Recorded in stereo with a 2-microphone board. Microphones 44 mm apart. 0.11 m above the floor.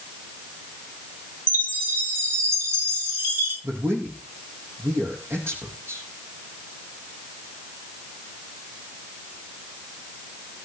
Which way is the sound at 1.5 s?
65° right (ahead or behind).